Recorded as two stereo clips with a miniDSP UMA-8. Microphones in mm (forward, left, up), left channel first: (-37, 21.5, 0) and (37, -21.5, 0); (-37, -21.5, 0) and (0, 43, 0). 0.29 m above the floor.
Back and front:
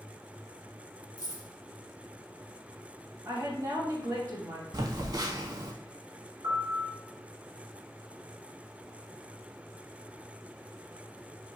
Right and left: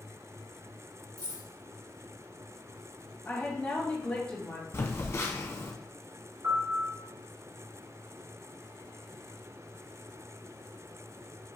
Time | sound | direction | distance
1.2 | keys jangling | 45° left | 2.5 m
3.2 | a woman speaking | 55° right | 1.8 m
4.7 | a phone buzzing | 70° right | 0.6 m
6.4 | a piano | 15° left | 1.8 m